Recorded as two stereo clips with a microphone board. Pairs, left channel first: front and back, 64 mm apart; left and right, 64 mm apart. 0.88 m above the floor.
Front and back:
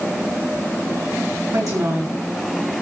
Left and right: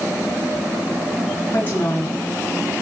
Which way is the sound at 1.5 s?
150° left.